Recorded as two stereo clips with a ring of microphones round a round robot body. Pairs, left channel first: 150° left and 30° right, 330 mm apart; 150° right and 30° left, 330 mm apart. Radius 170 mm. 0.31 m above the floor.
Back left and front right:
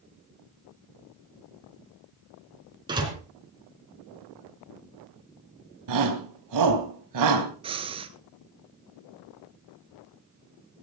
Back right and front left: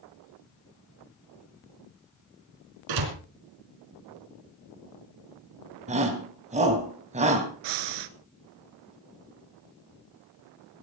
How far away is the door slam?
About 4 m.